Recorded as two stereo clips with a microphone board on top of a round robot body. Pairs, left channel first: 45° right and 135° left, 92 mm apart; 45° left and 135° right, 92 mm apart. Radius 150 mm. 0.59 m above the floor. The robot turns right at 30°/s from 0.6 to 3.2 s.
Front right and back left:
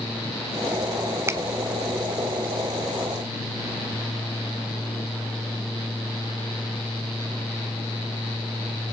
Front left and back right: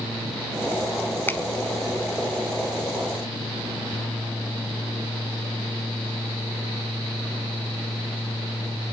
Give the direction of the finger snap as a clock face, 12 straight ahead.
9 o'clock.